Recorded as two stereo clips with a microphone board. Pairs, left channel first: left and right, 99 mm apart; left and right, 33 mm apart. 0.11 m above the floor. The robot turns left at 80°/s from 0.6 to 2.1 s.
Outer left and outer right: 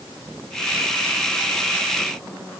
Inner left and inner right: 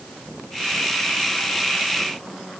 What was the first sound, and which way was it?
Only background noise.